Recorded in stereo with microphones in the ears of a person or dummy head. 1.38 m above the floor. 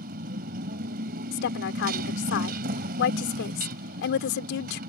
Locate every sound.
0.0 s a motorcycle: 45° right (ahead or behind)
1.3 s a woman speaking: 65° left (ahead or behind)